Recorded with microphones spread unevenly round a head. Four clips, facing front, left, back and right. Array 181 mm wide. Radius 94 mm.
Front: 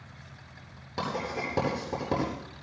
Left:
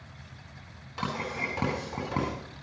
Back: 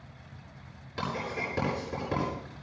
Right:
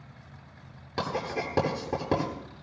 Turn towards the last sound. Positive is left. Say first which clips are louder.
# right 3 dB, front 2 dB
turn(degrees=-70)